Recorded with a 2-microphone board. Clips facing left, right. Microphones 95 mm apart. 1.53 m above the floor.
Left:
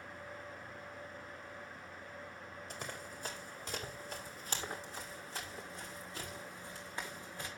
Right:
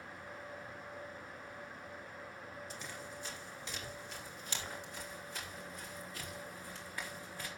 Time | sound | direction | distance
2.7 | running footsteps | 50° left (ahead or behind) | 4.5 m